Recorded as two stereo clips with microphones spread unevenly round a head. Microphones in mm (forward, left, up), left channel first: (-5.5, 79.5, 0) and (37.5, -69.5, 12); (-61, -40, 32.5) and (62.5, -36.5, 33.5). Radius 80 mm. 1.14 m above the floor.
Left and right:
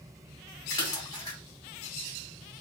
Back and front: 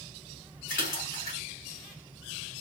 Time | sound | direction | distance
0.7 | a splash | 175° left | 1.9 m